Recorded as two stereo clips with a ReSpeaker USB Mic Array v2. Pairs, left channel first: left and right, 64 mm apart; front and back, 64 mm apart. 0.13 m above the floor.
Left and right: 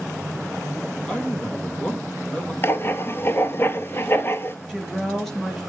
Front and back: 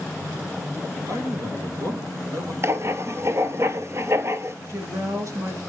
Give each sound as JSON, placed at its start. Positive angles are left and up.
{"t": 1.1, "sound": "a man speaking", "azimuth_deg": 160, "distance_m": 3.0}
{"t": 2.6, "sound": "writing", "azimuth_deg": 140, "distance_m": 0.7}
{"t": 4.7, "sound": "a woman speaking", "azimuth_deg": 175, "distance_m": 2.0}